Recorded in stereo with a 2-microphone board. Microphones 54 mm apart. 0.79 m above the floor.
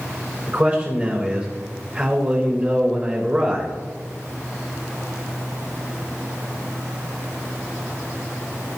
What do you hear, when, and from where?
0.5 s a man speaking: 25° right (ahead or behind), 4 m